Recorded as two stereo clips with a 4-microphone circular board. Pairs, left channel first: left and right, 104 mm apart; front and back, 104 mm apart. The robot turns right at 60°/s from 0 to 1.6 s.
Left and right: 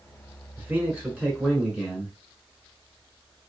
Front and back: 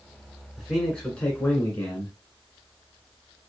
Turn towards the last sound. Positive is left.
turn(degrees=-30)